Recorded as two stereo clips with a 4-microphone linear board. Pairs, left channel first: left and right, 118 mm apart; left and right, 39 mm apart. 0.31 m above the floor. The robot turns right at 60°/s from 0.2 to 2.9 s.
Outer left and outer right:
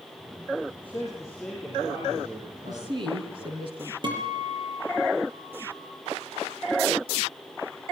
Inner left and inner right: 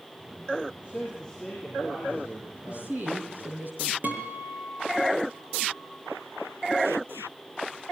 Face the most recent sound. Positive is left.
turn(degrees=-45)  # may be behind; listen again after turning